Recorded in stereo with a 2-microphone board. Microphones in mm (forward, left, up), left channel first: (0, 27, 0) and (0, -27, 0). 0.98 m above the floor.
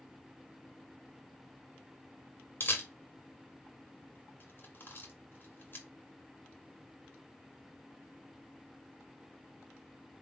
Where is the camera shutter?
40° left (ahead or behind), 1.5 m.